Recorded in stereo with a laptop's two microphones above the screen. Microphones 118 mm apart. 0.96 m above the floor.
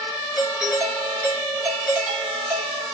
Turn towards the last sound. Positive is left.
turn(degrees=-5)  # may be behind; listen again after turning